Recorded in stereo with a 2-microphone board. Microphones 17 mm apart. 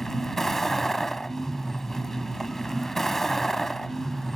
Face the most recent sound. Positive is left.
turn(degrees=15)  # may be behind; listen again after turning